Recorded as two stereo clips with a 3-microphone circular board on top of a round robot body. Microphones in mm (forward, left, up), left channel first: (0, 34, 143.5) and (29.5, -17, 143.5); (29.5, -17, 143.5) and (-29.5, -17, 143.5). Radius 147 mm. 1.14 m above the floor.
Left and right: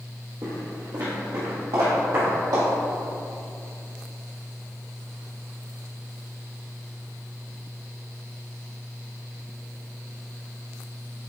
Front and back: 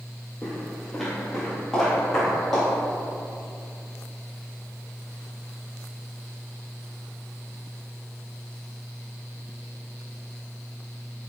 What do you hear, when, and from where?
0.4 s footsteps: 80° right, 1.3 m